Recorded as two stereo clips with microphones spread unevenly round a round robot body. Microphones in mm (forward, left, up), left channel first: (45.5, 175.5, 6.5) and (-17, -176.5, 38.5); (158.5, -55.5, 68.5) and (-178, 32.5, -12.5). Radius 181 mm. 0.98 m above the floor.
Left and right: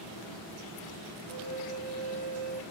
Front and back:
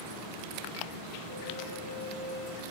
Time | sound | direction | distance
1.3 | a flute | 80° right | 0.7 m